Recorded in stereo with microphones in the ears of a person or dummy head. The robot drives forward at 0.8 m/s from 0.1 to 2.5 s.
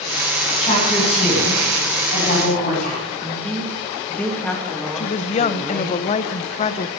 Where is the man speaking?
5° left (ahead or behind), 2.5 m.